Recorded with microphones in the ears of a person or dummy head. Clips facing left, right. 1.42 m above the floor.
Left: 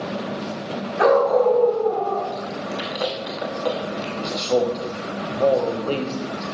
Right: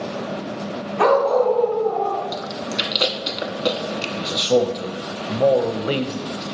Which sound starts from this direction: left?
A dog barking, at 1.0 s.